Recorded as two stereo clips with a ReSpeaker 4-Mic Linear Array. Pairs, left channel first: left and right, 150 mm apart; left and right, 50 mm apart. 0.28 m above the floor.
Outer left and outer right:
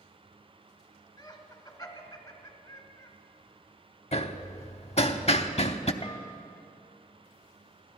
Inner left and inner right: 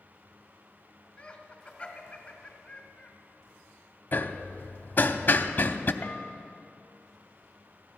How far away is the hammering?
About 0.7 m.